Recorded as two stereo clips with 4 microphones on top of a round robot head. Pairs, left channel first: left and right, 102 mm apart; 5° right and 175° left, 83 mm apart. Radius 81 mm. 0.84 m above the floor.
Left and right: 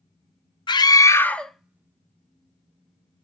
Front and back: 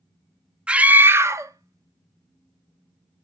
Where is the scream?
100° left, 0.9 m; by 3.2 s 135° right, 1.7 m.